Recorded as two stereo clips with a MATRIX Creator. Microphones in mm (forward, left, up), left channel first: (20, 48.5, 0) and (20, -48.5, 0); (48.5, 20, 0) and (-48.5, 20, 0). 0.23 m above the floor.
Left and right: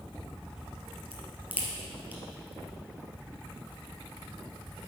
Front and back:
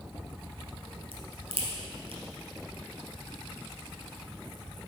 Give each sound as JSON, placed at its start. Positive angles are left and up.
{"t": 1.1, "sound": "a crack", "azimuth_deg": -165, "distance_m": 2.0}